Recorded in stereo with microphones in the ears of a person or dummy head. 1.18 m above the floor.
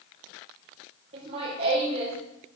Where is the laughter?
35° right (ahead or behind), 3 m.